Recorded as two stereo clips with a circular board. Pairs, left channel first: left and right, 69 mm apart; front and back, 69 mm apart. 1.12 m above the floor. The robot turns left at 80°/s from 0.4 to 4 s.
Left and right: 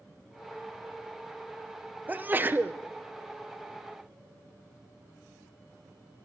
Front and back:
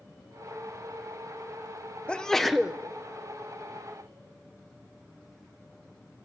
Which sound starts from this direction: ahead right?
A sneeze, at 2.1 s.